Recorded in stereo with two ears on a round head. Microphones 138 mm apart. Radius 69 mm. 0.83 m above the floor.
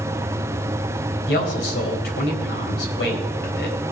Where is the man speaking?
70° left (ahead or behind), 3.5 m.